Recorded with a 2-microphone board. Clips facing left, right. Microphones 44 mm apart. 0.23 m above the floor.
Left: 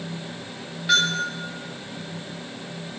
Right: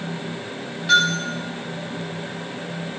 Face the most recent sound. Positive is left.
turn(degrees=5)  # may be behind; listen again after turning